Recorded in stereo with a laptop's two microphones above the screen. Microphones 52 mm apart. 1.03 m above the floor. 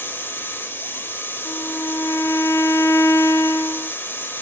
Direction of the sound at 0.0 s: 45° left (ahead or behind).